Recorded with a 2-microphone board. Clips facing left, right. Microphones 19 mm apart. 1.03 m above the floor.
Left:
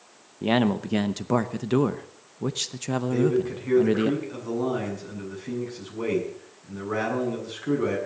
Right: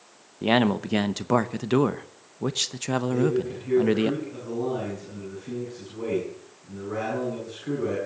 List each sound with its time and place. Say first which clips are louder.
0.4 s a man speaking: right 1 dB; 20° right (ahead or behind), 0.6 m
3.1 s a man speaking: left 3 dB; 40° left (ahead or behind), 7.5 m